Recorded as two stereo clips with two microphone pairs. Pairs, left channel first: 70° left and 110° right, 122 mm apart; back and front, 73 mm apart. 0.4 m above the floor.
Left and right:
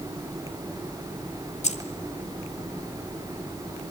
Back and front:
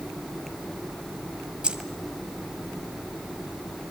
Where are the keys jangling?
75° left, 1.6 m.